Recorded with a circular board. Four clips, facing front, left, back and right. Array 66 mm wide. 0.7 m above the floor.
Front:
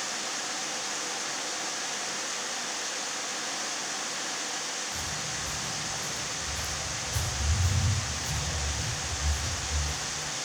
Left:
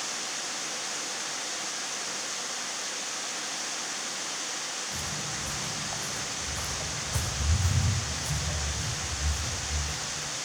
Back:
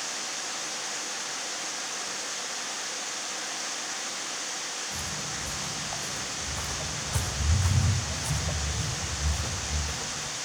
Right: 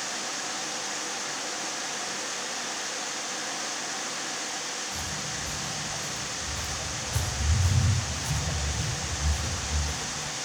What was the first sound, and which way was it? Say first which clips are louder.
Footsteps: right 1 dB, even; 130° left.